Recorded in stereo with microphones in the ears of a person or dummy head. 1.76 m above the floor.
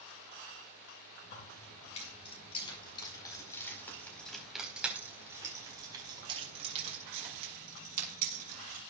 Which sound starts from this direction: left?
Keys jangling, at 1.2 s.